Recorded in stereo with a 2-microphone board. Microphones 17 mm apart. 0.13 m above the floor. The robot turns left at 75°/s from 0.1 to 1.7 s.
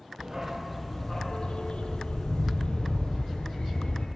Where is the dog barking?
145° right, 1.4 m; by 4.1 s 105° left, 1.4 m.